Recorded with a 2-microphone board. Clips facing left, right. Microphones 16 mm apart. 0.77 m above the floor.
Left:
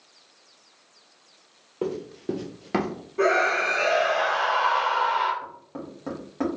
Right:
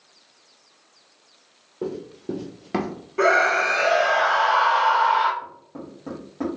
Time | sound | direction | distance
1.8 | running footsteps | 40° left (ahead or behind) | 1.1 m
3.2 | a scream | 40° right (ahead or behind) | 1.5 m
5.4 | knocking | 25° left (ahead or behind) | 1.1 m